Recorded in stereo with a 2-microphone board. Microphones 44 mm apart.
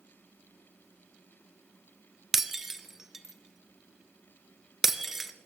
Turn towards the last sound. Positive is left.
turn(degrees=-5)  # may be behind; listen again after turning